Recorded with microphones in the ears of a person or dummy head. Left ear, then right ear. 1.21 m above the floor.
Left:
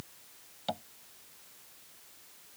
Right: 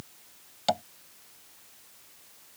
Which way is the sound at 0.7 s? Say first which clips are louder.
Right 9 dB; 35° right (ahead or behind).